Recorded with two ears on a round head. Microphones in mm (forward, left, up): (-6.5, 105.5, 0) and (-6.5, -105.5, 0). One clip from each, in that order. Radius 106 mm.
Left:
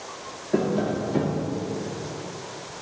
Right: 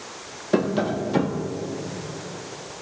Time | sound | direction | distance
0.5 | tapping | 50° right (ahead or behind) | 0.5 m